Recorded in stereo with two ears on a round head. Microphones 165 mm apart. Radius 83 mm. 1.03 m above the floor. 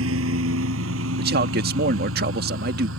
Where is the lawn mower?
85° right.